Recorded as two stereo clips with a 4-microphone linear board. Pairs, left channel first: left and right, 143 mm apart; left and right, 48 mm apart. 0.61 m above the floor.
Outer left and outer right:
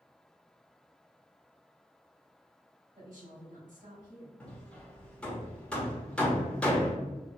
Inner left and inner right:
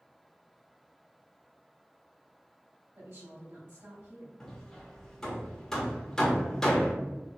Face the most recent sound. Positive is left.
turn(degrees=10)  # may be behind; listen again after turning